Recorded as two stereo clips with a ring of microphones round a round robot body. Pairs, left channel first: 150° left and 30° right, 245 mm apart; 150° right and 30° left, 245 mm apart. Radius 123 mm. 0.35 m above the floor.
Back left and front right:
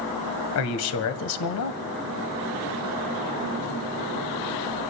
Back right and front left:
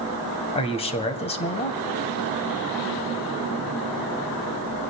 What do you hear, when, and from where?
0.6 s a man speaking: 145° left, 1.7 m